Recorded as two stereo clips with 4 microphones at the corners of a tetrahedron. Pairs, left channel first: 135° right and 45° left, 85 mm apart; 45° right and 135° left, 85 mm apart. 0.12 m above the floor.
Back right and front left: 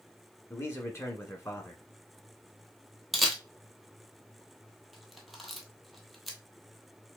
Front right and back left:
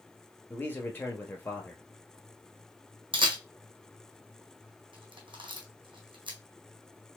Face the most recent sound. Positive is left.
turn(degrees=135)